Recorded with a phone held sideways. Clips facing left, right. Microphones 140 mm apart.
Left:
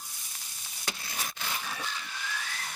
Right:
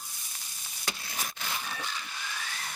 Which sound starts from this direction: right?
A bird, at 1.6 s.